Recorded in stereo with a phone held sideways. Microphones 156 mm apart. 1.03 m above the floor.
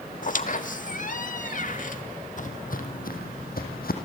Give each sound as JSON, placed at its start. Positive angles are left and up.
{"t": 0.2, "sound": "a squeak", "side_deg": 60, "distance_m": 1.1}
{"t": 2.4, "sound": "footsteps", "side_deg": 55, "distance_m": 2.5}